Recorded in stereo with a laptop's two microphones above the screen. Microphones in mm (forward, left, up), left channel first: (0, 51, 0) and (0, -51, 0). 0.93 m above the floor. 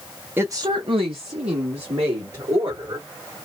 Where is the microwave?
I don't hear a microwave.